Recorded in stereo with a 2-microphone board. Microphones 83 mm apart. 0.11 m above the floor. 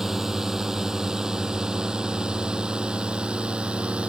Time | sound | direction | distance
0.0 | a drone | 5° right (ahead or behind) | ?